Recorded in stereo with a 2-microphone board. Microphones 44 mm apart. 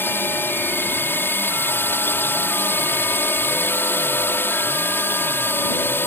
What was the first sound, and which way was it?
A drone, 60° left (ahead or behind).